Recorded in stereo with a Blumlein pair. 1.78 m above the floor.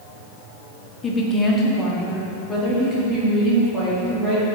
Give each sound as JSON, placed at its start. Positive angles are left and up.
{"t": 1.0, "sound": "a woman speaking", "azimuth_deg": 15, "distance_m": 1.2}